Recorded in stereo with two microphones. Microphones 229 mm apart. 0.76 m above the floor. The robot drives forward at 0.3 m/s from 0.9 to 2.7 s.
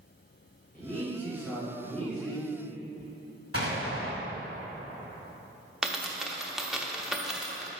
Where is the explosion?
75° left (ahead or behind), 1.8 m.